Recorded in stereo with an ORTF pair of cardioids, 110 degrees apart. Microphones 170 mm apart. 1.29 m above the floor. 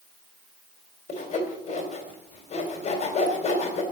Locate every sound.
1.1 s sawing: 45° left, 3.5 m